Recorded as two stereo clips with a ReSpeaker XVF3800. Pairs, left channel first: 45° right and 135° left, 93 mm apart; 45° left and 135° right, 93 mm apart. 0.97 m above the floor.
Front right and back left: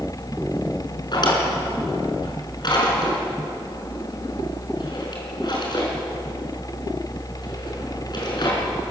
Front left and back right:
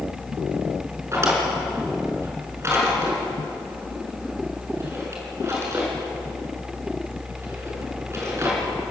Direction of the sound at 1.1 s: 80° right.